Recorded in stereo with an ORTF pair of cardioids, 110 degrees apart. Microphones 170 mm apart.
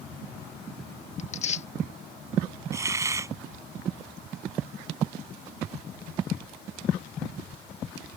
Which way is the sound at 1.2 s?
40° left.